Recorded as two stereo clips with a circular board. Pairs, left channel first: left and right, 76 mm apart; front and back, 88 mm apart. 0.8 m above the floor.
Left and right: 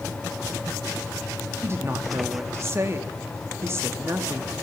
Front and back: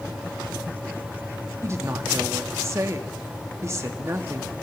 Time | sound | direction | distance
1.6 | a woman speaking | 135° right | 1.6 m